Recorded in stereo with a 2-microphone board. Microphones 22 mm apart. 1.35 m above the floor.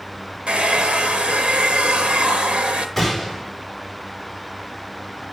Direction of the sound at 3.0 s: 5° left (ahead or behind).